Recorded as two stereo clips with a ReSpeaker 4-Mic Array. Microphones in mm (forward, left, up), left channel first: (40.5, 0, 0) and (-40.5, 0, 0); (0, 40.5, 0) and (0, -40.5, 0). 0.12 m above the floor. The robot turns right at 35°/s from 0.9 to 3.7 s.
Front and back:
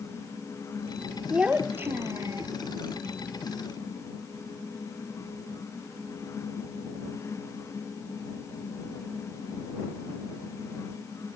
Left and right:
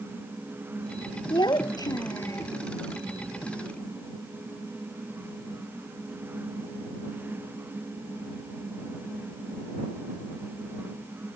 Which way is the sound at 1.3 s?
100° left.